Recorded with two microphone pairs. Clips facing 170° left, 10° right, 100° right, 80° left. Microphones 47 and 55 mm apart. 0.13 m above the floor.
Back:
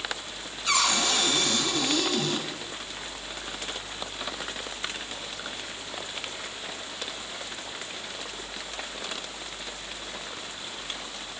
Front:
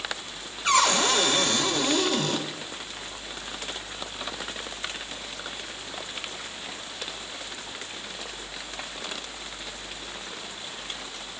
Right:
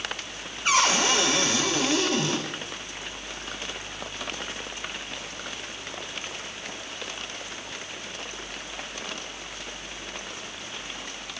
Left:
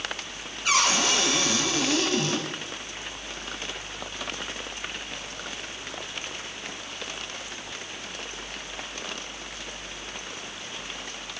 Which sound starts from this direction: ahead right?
A cupboard door, at 0.7 s.